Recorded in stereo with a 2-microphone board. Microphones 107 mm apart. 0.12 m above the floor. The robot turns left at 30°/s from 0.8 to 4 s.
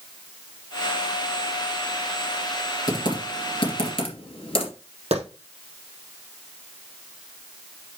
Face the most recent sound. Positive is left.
turn(degrees=-65)  # may be behind; listen again after turning